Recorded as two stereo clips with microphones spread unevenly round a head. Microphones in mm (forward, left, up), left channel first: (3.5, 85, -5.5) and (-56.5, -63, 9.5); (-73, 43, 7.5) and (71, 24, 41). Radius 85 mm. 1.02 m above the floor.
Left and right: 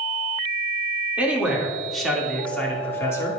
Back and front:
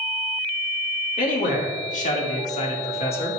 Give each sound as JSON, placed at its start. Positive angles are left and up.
{"t": 1.2, "sound": "a man speaking", "azimuth_deg": 165, "distance_m": 2.5}